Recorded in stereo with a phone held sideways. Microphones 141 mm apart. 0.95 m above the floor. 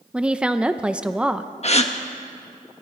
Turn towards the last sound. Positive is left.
turn(degrees=50)  # may be behind; listen again after turning